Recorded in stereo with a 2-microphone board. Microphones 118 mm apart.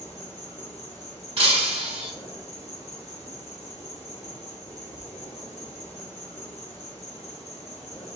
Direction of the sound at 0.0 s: 65° left (ahead or behind).